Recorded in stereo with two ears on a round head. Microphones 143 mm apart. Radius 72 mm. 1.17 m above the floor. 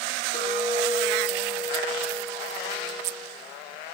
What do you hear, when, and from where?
0.3 s a clink: 40° left (ahead or behind), 1.1 m